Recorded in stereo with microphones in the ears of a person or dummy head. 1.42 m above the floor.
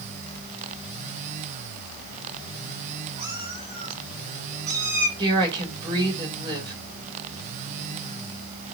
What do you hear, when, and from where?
3.2 s a cat meowing: 25° right (ahead or behind), 5.5 m; by 5.1 s 15° right (ahead or behind), 3.5 m
5.2 s a woman speaking: 30° right (ahead or behind), 4 m